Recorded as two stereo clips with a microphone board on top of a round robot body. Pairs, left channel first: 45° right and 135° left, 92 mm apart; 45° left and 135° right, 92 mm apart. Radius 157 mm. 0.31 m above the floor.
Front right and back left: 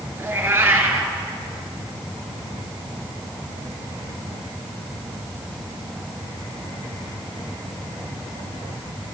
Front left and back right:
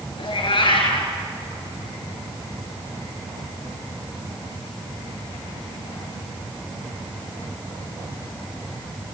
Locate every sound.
0.2 s a cat meowing: 70° left, 3.5 m